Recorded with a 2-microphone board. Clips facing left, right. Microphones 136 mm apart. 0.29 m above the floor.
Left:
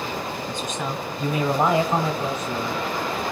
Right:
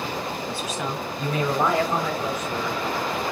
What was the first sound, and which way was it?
A man speaking, 10° right (ahead or behind).